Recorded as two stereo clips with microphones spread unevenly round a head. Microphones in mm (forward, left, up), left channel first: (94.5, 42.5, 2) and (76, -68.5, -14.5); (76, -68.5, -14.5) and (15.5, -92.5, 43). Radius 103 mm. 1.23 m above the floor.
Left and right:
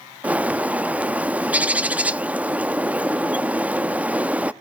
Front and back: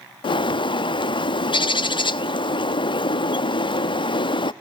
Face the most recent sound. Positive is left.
turn(degrees=-15)